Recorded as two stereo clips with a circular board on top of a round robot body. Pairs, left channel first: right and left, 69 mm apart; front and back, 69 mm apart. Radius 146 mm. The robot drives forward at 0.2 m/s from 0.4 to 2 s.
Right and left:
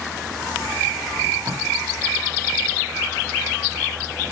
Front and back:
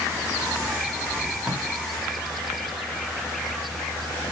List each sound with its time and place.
1.4 s tape being pulled: 100° left, 2.5 m